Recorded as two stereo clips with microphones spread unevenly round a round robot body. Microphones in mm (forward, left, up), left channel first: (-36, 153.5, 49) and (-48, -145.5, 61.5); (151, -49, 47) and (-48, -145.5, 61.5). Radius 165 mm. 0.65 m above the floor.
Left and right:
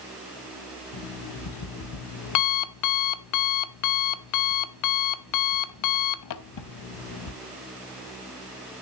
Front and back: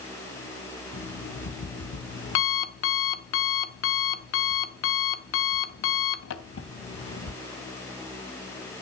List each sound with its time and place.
0.9 s an alarm clock: 60° left, 0.7 m